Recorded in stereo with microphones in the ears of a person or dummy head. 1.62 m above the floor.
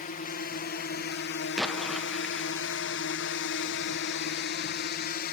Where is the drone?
30° left (ahead or behind); by 5.3 s 50° left (ahead or behind).